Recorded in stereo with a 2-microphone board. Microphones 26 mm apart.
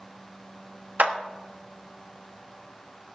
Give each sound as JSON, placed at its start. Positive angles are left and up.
{"t": 1.0, "sound": "a clap", "side_deg": -85, "distance_m": 1.3}